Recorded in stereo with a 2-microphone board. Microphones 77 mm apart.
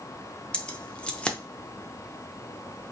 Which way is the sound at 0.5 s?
10° left (ahead or behind).